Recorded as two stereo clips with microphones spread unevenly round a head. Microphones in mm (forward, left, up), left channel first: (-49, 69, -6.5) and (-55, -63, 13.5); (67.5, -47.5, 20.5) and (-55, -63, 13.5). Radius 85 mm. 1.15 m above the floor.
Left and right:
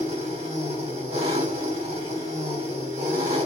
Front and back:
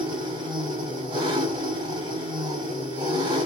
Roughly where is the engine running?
Behind right.